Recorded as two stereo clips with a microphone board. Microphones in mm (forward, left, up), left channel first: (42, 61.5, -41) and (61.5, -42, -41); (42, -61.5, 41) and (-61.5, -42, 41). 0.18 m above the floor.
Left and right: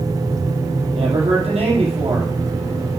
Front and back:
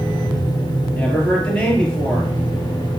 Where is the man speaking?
90° right, 4.5 m.